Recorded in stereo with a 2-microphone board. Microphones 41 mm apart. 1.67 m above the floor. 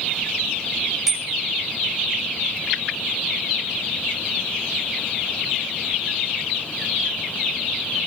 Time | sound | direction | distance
1.1 | a bicycle bell | 10° right (ahead or behind) | 8 m